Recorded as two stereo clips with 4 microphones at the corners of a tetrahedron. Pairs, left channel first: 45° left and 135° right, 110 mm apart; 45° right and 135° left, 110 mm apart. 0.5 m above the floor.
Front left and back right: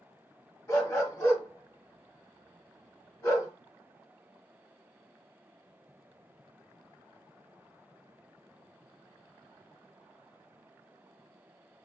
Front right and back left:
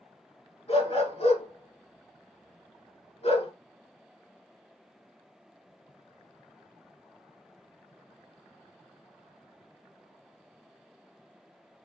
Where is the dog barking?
20° right, 1.5 m.